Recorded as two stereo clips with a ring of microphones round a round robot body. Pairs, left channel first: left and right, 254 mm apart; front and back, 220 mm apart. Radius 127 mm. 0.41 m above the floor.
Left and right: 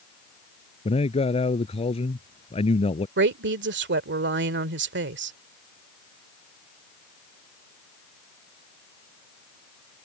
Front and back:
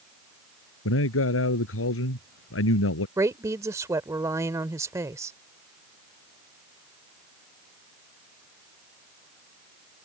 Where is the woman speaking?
110° right.